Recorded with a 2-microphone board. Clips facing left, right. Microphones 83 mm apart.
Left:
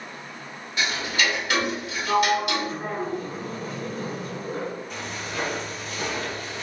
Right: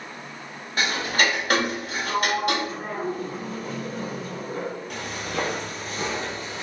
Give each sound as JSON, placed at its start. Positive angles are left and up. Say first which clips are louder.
{"t": 0.8, "sound": "ticking", "louder": "right 2 dB", "side_deg": -45, "distance_m": 0.5}
{"t": 2.1, "sound": "a sliding door", "louder": "left 3 dB", "side_deg": 30, "distance_m": 1.0}
{"t": 4.9, "sound": "footsteps", "louder": "right 2 dB", "side_deg": -60, "distance_m": 0.7}